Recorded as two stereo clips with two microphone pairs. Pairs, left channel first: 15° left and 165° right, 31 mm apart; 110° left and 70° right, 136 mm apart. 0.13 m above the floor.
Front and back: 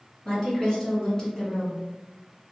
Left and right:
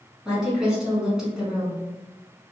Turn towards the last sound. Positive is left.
turn(degrees=10)